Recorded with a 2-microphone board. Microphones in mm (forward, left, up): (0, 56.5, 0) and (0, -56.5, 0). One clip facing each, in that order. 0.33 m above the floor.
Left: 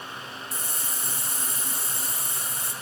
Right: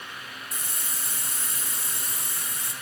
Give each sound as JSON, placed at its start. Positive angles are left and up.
{"t": 0.5, "sound": "a hiss", "side_deg": 30, "distance_m": 3.0}